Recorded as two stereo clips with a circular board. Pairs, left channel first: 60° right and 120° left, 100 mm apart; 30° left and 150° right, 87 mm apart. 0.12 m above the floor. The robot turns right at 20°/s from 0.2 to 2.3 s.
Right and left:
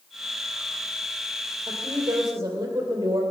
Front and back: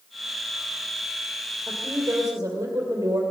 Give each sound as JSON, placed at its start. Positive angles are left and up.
{"t": 1.7, "sound": "a woman speaking", "azimuth_deg": 160, "distance_m": 3.0}